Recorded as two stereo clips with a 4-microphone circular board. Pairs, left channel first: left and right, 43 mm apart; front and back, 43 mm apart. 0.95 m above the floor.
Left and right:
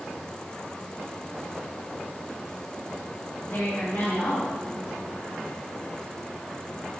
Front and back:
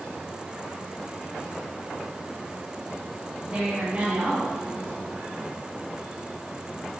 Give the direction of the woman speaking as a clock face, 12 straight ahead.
8 o'clock.